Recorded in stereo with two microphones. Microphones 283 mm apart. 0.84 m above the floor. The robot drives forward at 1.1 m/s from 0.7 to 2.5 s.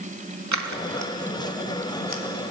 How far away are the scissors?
About 1.1 m.